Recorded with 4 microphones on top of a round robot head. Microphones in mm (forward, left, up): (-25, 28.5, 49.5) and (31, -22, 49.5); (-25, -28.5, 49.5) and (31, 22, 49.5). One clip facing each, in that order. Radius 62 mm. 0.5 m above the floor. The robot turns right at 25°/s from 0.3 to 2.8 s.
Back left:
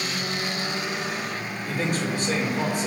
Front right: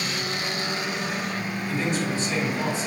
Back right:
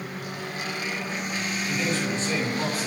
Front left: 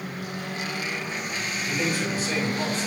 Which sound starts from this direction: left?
A man speaking, at 1.7 s.